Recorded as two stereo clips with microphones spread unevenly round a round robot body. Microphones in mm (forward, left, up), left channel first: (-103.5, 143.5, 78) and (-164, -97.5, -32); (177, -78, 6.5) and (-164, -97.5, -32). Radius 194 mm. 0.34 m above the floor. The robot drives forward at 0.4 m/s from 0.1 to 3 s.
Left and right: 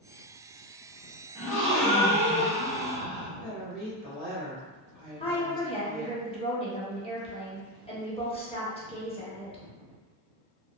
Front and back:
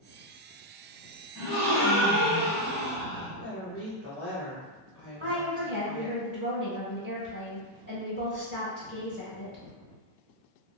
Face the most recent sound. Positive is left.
turn(degrees=165)